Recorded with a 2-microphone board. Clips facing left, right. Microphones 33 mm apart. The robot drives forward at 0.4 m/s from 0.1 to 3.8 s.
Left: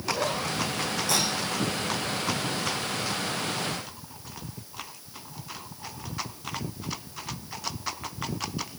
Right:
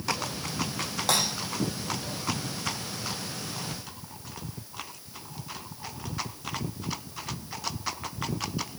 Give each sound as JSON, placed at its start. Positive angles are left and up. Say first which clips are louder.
{"t": 1.1, "sound": "breaking glass", "louder": "right 2 dB", "side_deg": -70, "distance_m": 8.5}